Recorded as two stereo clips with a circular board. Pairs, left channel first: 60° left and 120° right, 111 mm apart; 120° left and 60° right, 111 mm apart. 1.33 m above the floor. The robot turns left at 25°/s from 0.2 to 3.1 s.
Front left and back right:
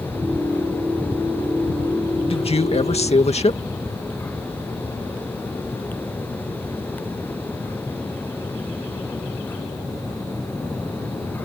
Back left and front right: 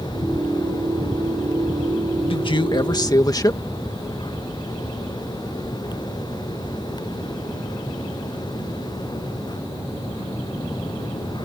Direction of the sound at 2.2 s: 90° left.